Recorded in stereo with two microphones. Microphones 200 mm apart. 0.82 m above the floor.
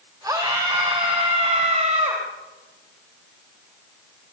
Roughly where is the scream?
Centre.